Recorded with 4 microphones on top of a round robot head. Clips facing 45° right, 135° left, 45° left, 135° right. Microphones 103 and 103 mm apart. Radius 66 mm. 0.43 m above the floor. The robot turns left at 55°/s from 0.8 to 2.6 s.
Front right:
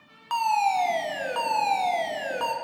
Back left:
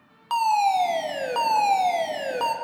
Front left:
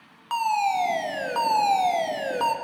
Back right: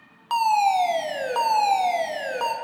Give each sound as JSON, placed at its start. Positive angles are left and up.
{"t": 0.3, "sound": "a fire alarm", "azimuth_deg": -175, "distance_m": 2.0}